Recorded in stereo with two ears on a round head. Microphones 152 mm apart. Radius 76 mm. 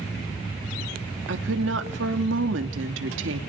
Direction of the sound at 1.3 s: 80° right.